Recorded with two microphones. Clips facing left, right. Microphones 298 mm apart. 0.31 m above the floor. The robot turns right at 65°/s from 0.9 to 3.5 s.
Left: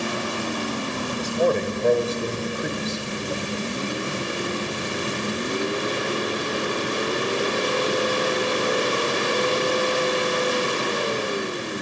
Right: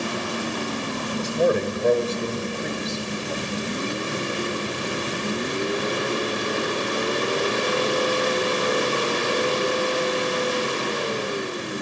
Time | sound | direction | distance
1.2 | a man speaking | 15° right (ahead or behind) | 1.2 m